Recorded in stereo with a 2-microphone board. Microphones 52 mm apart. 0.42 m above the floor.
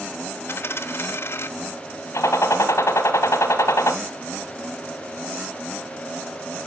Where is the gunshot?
70° left (ahead or behind), 1.4 m.